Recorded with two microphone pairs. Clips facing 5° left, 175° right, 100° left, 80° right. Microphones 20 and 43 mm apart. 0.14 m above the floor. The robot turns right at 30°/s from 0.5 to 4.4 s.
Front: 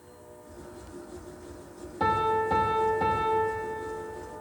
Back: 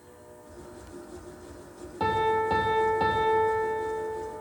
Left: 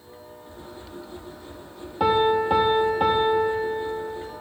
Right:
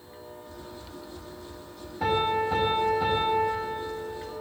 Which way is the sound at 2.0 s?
100° left.